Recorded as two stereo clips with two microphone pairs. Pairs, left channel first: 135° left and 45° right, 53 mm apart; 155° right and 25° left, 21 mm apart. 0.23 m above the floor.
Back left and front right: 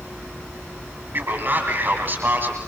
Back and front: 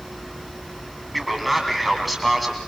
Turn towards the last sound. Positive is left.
turn(degrees=-65)